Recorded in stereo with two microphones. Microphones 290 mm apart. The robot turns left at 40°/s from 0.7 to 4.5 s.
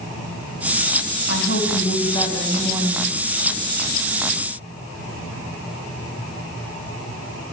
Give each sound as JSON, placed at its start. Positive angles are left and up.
{"t": 1.3, "sound": "a woman speaking", "azimuth_deg": 50, "distance_m": 5.5}